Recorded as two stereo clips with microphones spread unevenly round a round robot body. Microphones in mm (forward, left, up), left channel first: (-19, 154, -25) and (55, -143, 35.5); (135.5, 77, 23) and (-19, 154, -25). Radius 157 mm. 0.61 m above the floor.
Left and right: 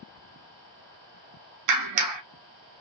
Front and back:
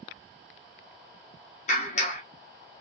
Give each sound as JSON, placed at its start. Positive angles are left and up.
{"t": 1.7, "sound": "a clap", "azimuth_deg": -90, "distance_m": 0.6}